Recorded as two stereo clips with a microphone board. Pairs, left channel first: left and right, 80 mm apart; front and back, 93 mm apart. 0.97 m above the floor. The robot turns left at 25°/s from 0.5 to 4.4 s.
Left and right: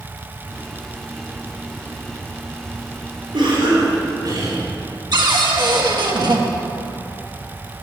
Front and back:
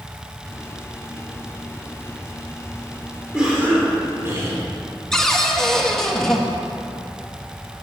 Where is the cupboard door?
85° right, 1.3 m.